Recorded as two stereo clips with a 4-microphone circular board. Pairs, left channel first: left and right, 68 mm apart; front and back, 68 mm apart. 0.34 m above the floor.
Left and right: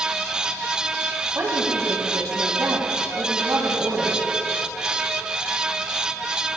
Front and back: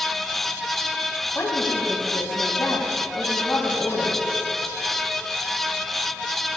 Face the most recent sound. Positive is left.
turn(degrees=-55)